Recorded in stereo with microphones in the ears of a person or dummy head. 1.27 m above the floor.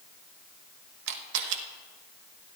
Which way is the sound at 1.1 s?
70° right (ahead or behind).